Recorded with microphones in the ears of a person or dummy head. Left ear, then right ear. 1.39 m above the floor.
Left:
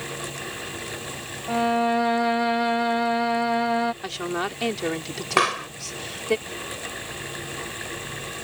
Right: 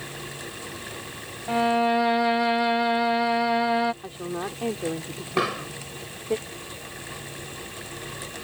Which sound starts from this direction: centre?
A violin, at 1.5 s.